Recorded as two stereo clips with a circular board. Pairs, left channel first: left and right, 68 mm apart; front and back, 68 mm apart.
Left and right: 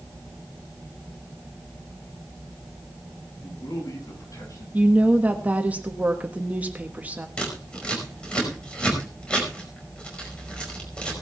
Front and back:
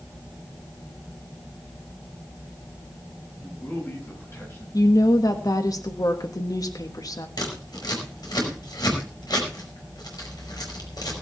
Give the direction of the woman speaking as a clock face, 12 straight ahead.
1 o'clock.